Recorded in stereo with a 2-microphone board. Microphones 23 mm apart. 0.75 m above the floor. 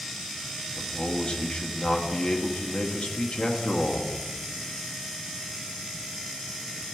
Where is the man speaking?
45° left (ahead or behind), 1.1 m.